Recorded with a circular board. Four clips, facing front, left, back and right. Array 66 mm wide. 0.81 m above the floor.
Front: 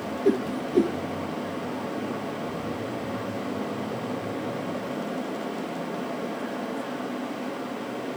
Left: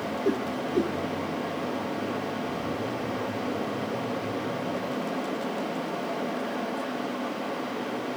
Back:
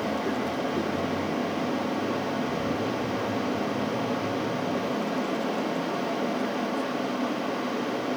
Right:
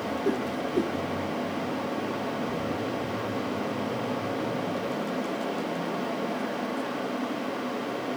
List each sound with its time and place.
0.2 s a whoosh: 5° left